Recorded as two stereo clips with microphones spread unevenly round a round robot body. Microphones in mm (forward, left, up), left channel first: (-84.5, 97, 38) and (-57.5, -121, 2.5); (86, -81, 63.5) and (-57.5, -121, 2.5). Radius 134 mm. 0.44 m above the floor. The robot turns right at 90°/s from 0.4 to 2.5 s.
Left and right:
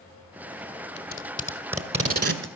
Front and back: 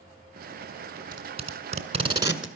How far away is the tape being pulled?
About 1.7 m.